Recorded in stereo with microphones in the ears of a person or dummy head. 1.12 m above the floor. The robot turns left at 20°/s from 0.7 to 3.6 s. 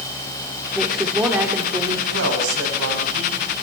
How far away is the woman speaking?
About 3 m.